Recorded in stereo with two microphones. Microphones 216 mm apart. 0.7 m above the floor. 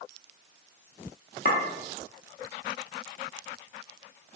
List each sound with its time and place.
1.4 s a clink: 50° left (ahead or behind), 0.8 m